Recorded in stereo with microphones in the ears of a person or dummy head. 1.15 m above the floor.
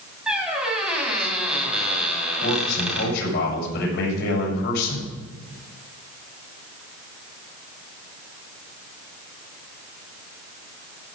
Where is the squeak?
5° right (ahead or behind), 2.5 m.